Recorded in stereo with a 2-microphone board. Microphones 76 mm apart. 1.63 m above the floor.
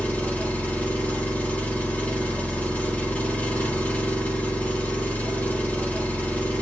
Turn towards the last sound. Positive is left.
turn(degrees=20)  # may be behind; listen again after turning